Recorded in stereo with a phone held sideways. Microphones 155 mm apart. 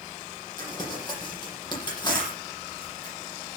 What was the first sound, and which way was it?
Crumpling, 30° left (ahead or behind).